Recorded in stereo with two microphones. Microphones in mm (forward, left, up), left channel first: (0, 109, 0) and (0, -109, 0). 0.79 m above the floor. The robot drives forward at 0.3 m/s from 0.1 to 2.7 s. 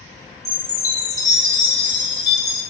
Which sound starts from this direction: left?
A chime, at 0.5 s.